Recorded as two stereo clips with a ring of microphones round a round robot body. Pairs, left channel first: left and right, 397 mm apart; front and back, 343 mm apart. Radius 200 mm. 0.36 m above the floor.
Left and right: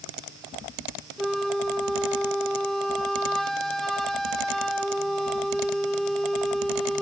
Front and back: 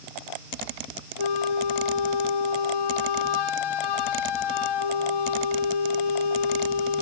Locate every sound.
1.2 s a flute: straight ahead